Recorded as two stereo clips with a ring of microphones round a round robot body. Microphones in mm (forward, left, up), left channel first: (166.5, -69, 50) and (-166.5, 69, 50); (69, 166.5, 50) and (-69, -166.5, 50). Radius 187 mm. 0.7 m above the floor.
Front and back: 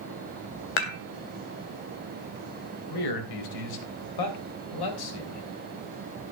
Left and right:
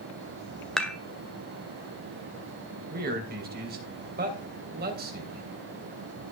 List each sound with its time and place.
0.8 s dishes clattering: 20° right, 1.8 m
2.9 s a man speaking: 45° right, 3.5 m